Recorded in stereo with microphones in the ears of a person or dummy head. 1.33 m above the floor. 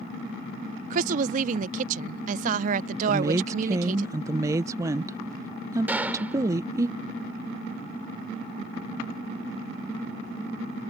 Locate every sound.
0.9 s a woman speaking: 45° right (ahead or behind)
3.1 s a woman speaking: 20° right (ahead or behind)
5.9 s a gunshot: 5° right (ahead or behind)